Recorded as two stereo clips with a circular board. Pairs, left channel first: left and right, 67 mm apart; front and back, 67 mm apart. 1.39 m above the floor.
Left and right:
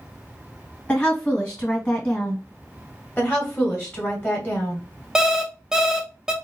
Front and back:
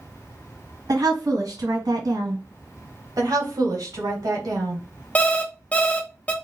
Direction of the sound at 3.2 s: 155° left.